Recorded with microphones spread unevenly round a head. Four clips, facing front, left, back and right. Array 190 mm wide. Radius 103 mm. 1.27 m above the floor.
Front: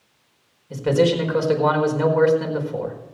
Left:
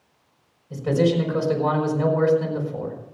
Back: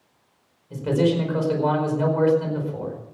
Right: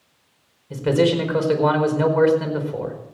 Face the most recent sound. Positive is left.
turn(degrees=-45)